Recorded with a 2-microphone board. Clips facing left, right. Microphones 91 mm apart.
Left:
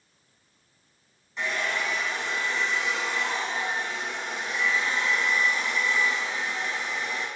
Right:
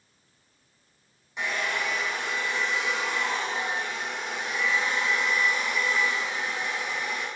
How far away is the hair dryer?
About 3 m.